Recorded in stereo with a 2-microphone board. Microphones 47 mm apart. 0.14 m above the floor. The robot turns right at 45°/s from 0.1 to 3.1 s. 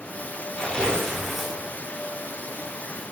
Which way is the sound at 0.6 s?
150° left.